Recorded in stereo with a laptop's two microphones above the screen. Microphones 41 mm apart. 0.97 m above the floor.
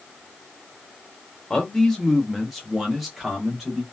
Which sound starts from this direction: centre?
A man speaking, at 1.5 s.